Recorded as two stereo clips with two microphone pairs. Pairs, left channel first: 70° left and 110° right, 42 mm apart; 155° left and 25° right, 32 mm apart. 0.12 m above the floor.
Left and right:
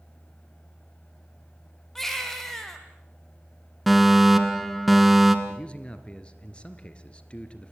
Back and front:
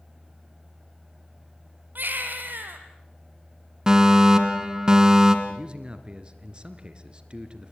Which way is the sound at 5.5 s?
20° left.